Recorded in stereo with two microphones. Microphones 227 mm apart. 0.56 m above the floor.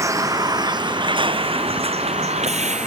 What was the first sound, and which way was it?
A vehicle, 15° right (ahead or behind).